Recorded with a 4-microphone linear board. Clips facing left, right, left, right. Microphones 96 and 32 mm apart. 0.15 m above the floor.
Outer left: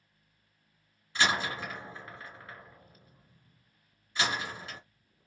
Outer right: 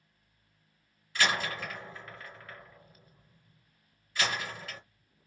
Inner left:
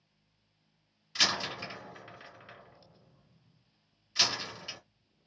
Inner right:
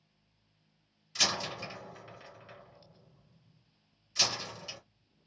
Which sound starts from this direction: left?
A door slam, at 1.1 s.